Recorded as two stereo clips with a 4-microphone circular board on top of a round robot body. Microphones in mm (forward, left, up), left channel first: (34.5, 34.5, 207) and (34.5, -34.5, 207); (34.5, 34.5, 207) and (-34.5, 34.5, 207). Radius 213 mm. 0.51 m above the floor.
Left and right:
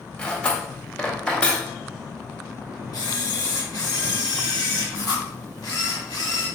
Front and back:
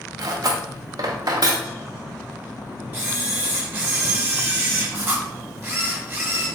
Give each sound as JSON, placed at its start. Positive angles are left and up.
{"t": 0.2, "sound": "cutlery clinking", "azimuth_deg": 165, "distance_m": 0.7}
{"t": 2.9, "sound": "a camera shutter", "azimuth_deg": 120, "distance_m": 1.3}